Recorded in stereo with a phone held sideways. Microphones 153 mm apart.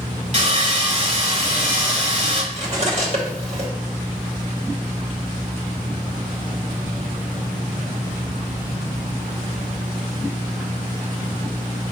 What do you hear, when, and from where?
0.3 s sawing: 50° right (ahead or behind), 1.6 m
2.5 s cutlery clinking: 45° right (ahead or behind), 1.2 m